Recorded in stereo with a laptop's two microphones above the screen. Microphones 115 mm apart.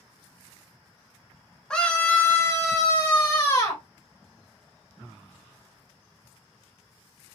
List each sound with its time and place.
1.7 s a scream: 10° left (ahead or behind), 0.7 m; by 3.8 s 30° left (ahead or behind), 1.1 m